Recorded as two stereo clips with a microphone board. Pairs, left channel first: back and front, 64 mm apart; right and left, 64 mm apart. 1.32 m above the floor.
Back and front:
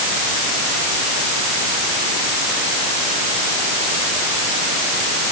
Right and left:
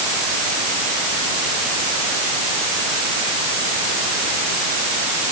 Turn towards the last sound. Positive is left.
No sound to turn to.